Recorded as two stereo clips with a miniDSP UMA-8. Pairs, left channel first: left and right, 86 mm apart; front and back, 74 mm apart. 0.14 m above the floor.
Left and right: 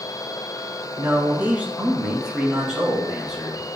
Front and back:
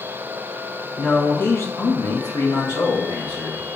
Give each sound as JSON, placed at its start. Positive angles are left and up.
{"t": 1.0, "sound": "a man speaking", "azimuth_deg": -70, "distance_m": 1.3}